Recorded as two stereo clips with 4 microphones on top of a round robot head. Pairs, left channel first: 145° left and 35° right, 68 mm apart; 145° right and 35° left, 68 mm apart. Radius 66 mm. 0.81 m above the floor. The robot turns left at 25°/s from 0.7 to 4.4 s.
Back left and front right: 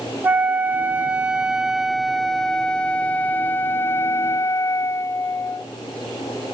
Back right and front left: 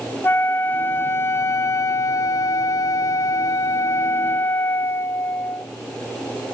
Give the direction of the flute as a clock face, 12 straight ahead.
3 o'clock.